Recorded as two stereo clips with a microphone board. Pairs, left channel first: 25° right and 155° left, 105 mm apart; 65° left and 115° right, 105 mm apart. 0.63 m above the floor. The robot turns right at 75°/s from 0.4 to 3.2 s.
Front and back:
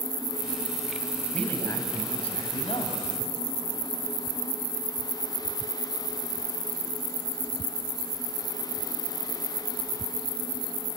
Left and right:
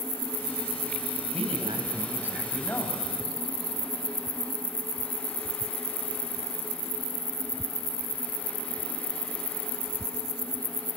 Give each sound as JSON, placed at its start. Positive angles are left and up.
{"t": 1.3, "sound": "a man speaking", "azimuth_deg": -105, "distance_m": 3.5}